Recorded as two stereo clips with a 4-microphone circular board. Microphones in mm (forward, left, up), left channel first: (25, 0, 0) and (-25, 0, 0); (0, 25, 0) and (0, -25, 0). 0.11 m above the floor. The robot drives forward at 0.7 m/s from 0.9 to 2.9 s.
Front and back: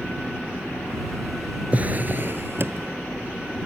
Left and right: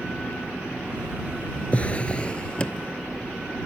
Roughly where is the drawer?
Behind left.